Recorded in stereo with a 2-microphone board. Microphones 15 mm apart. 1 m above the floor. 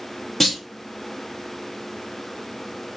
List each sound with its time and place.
0.4 s a clunk: 5° left (ahead or behind), 0.7 m